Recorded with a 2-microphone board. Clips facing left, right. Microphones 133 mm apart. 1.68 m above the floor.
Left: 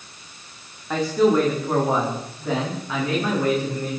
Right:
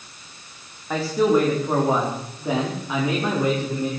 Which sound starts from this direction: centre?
A man speaking, at 0.9 s.